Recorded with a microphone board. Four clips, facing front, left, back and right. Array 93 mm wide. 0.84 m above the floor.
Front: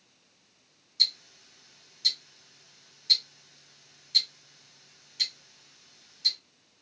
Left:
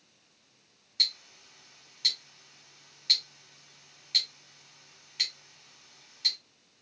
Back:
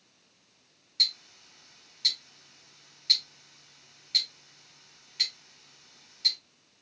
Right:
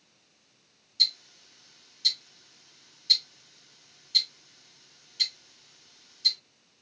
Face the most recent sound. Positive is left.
turn(degrees=110)